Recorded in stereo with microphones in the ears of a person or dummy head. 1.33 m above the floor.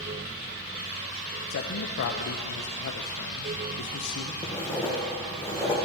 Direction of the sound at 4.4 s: 15° left (ahead or behind).